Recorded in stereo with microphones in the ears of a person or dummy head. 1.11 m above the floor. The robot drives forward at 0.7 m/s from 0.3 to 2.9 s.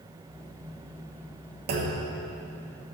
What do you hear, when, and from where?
1.7 s a clunk: 50° right (ahead or behind), 1.2 m; by 2.0 s 40° right (ahead or behind), 1.3 m